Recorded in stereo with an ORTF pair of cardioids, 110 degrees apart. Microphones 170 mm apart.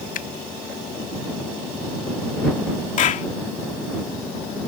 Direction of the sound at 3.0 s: 50° left.